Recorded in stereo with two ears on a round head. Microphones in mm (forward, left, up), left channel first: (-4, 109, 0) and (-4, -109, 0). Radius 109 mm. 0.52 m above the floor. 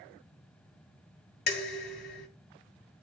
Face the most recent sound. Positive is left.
turn(degrees=40)  # may be behind; listen again after turning